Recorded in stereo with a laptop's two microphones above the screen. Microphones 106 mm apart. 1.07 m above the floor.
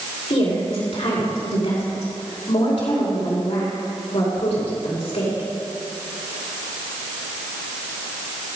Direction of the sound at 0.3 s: 80° left.